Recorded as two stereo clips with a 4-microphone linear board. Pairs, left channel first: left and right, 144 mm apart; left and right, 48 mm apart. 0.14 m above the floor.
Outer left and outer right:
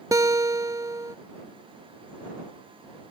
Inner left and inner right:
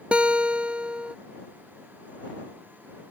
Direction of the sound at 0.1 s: 25° right (ahead or behind).